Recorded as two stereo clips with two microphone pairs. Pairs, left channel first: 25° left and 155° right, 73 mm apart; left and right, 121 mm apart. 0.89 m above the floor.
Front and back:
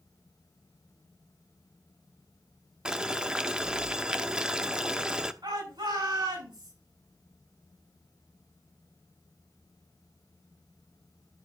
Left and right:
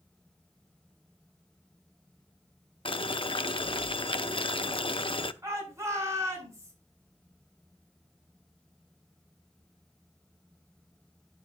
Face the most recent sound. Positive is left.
turn(degrees=-155)